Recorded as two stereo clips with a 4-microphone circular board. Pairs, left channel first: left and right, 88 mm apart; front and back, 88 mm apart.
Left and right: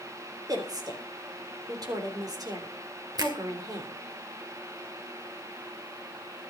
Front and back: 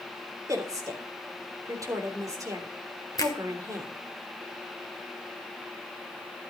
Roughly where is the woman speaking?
Behind right.